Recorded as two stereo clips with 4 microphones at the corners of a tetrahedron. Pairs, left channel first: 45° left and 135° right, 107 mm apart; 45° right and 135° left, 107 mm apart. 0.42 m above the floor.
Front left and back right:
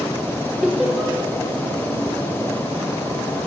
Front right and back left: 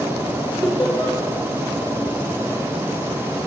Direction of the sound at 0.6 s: 55° right.